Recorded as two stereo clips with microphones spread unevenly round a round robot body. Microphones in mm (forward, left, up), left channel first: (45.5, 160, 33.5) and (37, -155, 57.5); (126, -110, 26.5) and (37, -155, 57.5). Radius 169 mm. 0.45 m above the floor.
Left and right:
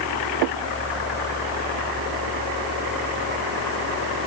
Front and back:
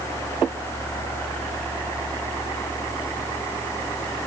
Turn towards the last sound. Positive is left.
No sound to turn to.